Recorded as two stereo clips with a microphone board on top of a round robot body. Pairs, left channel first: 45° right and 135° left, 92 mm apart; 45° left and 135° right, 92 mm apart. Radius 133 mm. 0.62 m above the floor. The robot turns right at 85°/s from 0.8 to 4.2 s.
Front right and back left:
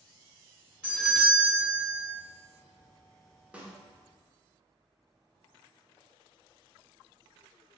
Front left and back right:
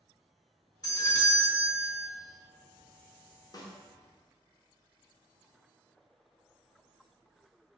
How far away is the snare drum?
About 0.8 m.